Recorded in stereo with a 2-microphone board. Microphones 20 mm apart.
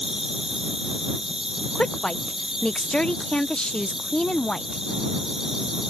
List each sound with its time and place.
0.0 s an insect: 25° right (ahead or behind)
1.8 s a woman speaking: 50° left (ahead or behind)